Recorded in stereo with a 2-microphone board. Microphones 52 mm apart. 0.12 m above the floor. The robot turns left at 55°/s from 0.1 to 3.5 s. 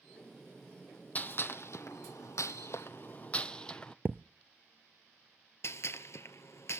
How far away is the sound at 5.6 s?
About 0.6 m.